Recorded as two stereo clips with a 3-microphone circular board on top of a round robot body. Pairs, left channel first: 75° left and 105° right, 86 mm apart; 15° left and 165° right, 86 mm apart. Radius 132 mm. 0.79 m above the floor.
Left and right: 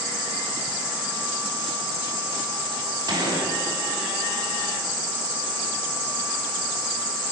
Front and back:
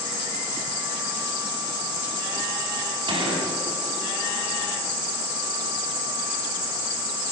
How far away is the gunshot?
About 4.5 m.